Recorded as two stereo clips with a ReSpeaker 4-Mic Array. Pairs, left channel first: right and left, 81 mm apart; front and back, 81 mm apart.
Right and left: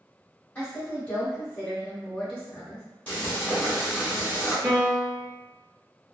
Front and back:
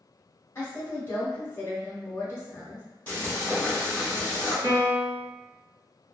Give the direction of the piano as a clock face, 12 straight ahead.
7 o'clock.